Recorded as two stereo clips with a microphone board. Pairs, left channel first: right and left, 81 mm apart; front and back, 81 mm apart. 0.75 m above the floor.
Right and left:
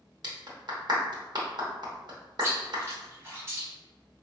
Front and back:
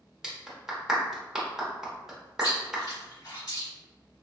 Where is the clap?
95° left, 0.8 m.